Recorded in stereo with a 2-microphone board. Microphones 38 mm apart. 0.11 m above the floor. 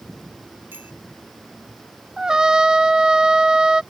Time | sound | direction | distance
0.7 | a bicycle bell | 60° right (ahead or behind) | ?
2.2 | a trumpet | 20° right (ahead or behind) | ?